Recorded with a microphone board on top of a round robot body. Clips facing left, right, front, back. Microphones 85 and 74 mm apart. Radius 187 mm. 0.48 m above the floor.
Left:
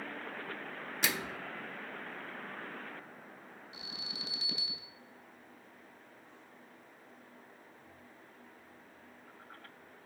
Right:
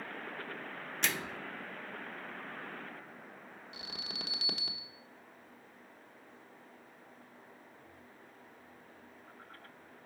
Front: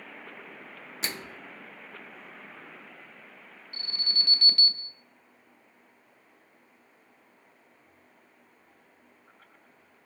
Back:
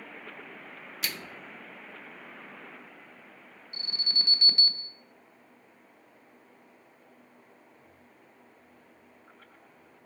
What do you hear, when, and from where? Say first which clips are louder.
1.0 s a microwave: left 1 dB, front 1 dB; 15° left, 0.6 m
3.7 s an alarm: right 3 dB, front 1 dB; 110° right, 1.1 m